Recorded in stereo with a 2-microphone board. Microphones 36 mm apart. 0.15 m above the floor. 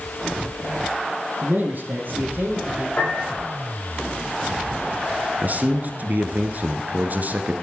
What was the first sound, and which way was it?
A man speaking, 50° right (ahead or behind).